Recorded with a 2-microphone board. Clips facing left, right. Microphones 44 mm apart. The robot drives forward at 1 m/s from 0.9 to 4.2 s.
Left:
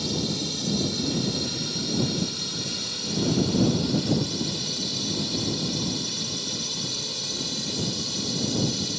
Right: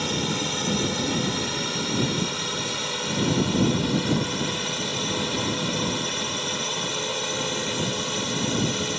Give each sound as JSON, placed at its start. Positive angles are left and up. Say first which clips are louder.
{"t": 0.0, "sound": "a drone", "louder": "right 2 dB", "side_deg": -50}